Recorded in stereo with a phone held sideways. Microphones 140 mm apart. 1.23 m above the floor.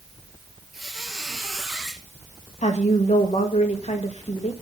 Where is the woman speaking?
55° left (ahead or behind), 2 m.